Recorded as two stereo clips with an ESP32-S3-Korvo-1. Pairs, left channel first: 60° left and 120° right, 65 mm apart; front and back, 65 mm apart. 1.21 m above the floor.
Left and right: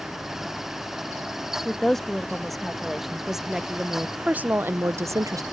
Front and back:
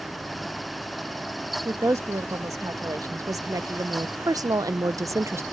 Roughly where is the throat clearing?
No throat clearing in this recording.